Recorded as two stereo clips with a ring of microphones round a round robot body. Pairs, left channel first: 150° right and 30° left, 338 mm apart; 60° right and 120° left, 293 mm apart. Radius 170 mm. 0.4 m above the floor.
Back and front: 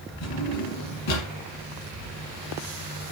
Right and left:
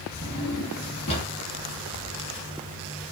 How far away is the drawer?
About 1.8 m.